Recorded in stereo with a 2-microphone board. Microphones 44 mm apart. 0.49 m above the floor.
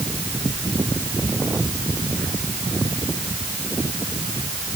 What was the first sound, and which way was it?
Only background noise.